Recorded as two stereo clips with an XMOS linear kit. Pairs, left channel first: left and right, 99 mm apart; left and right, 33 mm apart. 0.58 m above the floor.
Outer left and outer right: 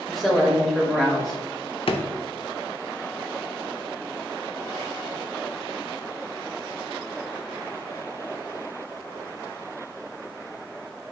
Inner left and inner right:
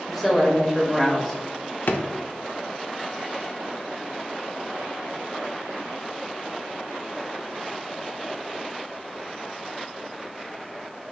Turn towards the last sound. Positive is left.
turn(degrees=65)  # may be behind; listen again after turning